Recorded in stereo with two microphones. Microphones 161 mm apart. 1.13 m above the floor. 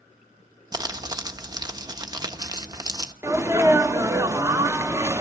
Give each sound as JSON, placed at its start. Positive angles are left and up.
{"t": 0.7, "sound": "crumpling", "side_deg": -25, "distance_m": 0.9}
{"t": 3.2, "sound": "a sneeze", "side_deg": -15, "distance_m": 0.6}